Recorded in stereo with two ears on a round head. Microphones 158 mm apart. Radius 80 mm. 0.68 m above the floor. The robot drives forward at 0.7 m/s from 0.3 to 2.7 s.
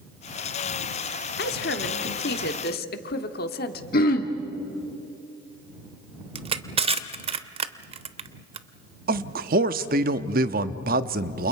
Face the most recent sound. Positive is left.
turn(degrees=-55)  # may be behind; listen again after turning